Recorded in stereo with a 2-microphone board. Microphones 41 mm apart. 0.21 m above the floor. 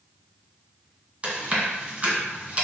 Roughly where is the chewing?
Right.